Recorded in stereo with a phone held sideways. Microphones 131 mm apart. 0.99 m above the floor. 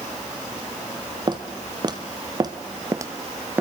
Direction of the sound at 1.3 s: 35° right (ahead or behind).